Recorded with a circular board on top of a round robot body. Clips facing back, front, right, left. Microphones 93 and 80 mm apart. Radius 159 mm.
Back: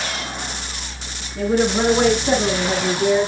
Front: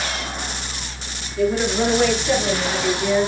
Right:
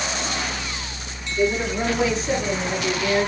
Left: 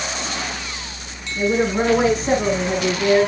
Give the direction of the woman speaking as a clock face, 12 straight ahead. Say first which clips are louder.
Back 1 dB, left 3 dB; 7 o'clock.